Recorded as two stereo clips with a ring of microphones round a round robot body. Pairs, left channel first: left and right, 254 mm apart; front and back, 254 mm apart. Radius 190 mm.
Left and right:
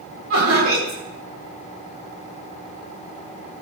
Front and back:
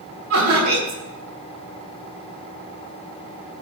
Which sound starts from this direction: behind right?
Laughter, at 0.3 s.